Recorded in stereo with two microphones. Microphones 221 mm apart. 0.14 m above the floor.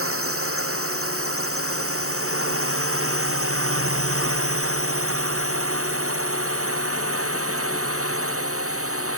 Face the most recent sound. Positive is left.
turn(degrees=-85)